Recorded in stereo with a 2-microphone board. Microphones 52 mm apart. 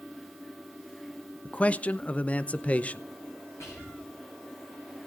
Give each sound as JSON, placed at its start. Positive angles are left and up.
{"t": 1.4, "sound": "a man speaking", "side_deg": 25, "distance_m": 0.6}
{"t": 3.6, "sound": "whispering", "side_deg": 70, "distance_m": 8.5}